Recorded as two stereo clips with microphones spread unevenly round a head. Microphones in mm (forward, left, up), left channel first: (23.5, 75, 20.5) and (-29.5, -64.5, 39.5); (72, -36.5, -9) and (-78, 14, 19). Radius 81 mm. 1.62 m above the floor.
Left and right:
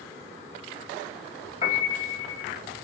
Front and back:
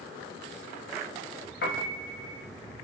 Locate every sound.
1.6 s a piano: 15° left, 1.3 m